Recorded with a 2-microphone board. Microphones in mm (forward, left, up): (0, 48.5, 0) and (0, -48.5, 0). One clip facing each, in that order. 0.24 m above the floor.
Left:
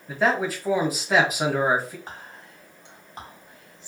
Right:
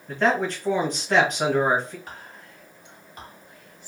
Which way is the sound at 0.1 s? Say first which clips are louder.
Right 1 dB; 5° left (ahead or behind).